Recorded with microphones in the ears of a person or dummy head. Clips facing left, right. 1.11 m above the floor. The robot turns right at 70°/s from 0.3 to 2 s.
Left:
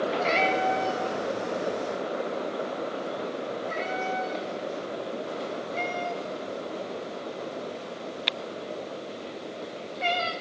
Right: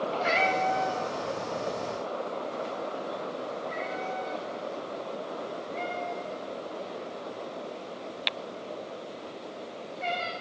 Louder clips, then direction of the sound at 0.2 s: Even; 15° right (ahead or behind).